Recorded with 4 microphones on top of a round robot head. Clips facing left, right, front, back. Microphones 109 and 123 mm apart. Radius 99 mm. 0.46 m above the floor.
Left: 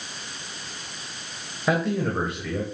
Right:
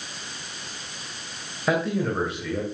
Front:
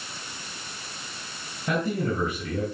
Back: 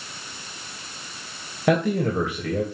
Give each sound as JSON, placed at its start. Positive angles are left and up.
{"t": 1.7, "sound": "a man speaking", "azimuth_deg": 180, "distance_m": 3.0}